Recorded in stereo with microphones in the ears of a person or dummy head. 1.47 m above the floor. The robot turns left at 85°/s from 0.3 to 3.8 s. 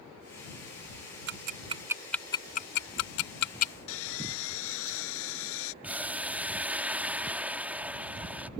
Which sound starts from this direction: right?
Ticking, at 1.3 s.